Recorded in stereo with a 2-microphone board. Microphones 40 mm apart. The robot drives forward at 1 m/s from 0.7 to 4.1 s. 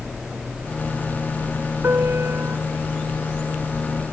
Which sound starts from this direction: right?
A piano, at 1.8 s.